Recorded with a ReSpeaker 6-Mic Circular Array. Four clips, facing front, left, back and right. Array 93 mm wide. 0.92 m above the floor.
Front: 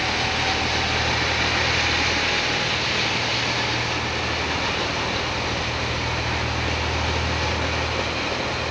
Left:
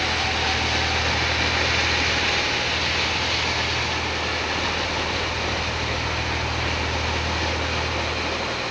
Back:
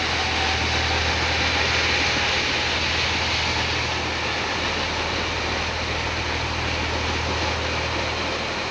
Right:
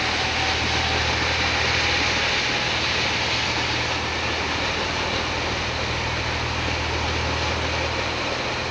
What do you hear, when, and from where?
Only background noise.